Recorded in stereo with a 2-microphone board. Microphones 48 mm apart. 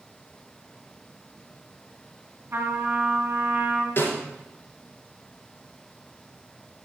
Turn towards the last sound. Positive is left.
turn(degrees=45)  # may be behind; listen again after turning